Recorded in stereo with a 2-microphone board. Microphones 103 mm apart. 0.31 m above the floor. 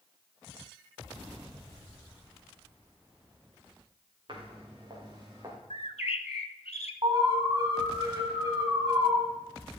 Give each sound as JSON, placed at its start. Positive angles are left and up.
{"t": 4.3, "sound": "footsteps", "side_deg": -50, "distance_m": 3.5}
{"t": 5.7, "sound": "a bird", "side_deg": 85, "distance_m": 0.6}
{"t": 7.0, "sound": "an alarm", "side_deg": -50, "distance_m": 2.0}